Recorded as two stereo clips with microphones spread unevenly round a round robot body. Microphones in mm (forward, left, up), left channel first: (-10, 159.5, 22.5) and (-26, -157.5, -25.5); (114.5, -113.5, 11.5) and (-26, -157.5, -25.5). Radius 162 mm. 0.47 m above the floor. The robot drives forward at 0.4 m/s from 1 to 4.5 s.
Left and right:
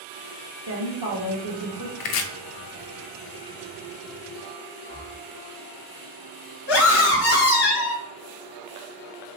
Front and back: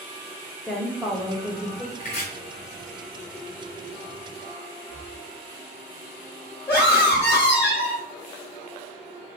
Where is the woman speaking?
75° right, 2 m; by 1.9 s 85° right, 2.0 m.